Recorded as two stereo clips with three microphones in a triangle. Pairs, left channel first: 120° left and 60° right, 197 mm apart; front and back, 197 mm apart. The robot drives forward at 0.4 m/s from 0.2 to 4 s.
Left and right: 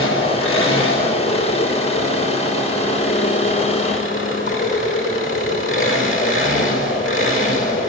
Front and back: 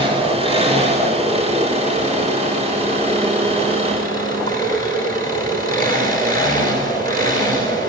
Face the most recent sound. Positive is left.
turn(degrees=130)